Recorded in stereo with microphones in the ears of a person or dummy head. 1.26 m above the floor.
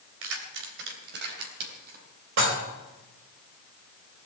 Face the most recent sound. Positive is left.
turn(degrees=-60)  # may be behind; listen again after turning